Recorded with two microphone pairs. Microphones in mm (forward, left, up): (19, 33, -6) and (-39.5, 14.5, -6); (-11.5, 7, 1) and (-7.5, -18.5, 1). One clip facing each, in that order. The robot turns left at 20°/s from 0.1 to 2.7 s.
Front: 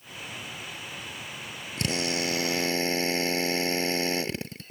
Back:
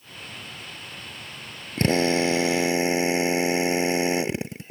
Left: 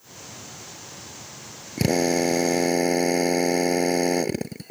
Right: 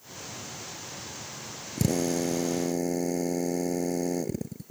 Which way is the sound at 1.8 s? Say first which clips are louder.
Back 9 dB, left 6 dB; 145° left.